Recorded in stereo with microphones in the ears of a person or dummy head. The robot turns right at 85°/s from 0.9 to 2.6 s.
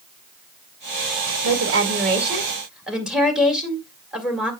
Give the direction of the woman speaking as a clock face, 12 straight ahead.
3 o'clock.